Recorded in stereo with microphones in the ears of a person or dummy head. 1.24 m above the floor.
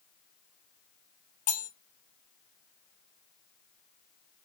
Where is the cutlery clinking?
45° left (ahead or behind), 0.7 m.